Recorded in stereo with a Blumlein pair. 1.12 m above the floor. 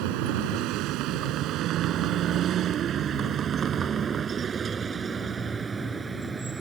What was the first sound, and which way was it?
A vehicle, 45° right.